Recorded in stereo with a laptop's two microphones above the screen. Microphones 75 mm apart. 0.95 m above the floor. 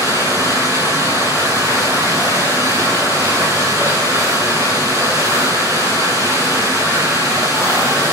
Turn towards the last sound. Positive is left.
turn(degrees=-50)  # may be behind; listen again after turning